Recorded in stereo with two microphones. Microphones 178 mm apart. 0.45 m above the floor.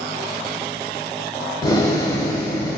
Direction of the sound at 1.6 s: 20° left (ahead or behind).